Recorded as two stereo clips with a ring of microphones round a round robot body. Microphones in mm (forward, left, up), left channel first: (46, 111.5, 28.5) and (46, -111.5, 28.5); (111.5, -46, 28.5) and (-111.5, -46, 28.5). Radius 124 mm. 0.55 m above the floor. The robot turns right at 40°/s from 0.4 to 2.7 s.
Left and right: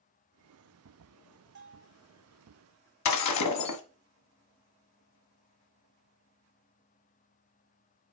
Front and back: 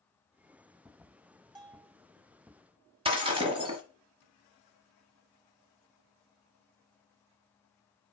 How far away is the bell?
About 1.6 m.